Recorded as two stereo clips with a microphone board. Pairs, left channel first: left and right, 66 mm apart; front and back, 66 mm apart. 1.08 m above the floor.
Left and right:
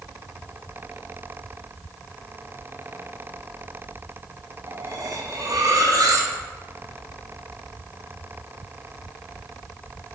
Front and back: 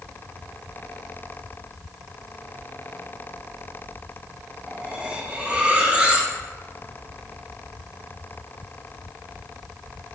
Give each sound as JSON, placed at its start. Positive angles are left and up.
{"t": 4.7, "sound": "cutlery clinking", "azimuth_deg": -105, "distance_m": 0.6}